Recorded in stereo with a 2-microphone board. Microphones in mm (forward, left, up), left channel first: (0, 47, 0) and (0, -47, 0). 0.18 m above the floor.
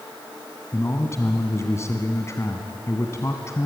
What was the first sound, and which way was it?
A man speaking, 30° left (ahead or behind).